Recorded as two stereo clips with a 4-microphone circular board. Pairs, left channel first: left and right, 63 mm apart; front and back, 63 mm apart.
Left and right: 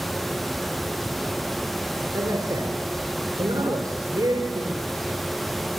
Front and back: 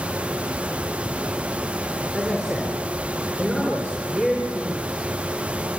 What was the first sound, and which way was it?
A man speaking, 95° right.